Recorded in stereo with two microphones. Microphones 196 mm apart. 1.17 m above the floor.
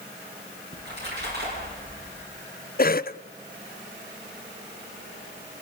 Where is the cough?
50° left (ahead or behind), 0.6 m.